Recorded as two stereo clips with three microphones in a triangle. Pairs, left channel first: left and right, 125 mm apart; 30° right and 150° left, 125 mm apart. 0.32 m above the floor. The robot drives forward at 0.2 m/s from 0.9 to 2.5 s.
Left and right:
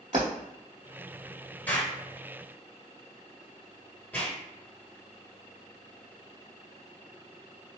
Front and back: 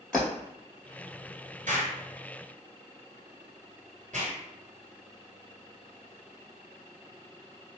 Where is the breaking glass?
115° right, 1.6 m.